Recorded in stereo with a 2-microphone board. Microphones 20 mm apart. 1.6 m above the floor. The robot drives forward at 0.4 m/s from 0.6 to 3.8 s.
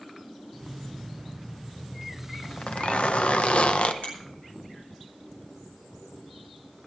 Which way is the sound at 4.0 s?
70° left (ahead or behind).